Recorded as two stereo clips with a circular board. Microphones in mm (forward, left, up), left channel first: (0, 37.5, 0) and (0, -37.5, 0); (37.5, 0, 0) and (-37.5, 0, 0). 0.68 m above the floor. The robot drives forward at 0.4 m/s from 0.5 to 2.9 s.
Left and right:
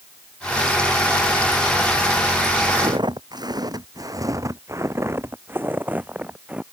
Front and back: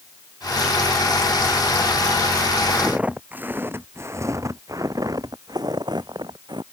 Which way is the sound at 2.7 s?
100° right.